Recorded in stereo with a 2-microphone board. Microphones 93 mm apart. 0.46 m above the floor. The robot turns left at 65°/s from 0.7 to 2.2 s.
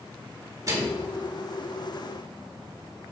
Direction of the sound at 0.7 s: 35° right (ahead or behind).